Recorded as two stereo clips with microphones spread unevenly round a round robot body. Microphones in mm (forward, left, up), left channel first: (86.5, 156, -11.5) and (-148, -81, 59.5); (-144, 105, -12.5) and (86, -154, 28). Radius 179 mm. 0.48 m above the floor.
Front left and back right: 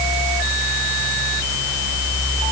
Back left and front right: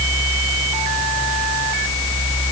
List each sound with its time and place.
Only background noise.